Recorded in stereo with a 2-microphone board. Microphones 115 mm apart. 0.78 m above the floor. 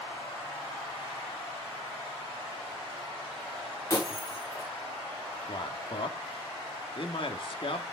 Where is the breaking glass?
30° left (ahead or behind), 3 m.